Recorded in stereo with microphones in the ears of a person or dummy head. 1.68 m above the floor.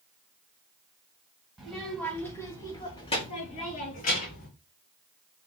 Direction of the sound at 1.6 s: Centre (ahead or behind).